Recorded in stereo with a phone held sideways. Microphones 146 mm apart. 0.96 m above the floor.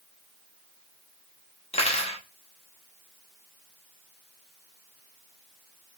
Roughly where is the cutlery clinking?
Left.